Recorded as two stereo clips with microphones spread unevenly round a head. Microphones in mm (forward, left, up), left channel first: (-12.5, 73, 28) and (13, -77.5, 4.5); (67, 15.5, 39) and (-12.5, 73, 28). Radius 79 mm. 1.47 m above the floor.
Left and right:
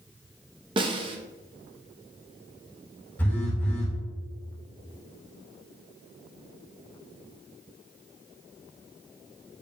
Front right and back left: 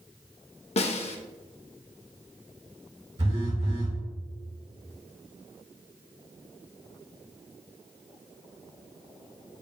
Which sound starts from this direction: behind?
A phone buzzing, at 3.2 s.